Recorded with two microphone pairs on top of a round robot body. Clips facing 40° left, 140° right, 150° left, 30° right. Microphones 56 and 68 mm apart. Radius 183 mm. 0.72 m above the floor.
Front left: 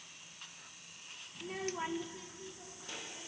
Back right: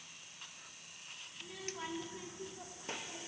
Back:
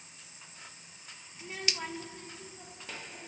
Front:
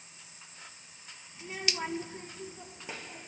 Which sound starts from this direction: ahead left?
A child speaking, at 1.4 s.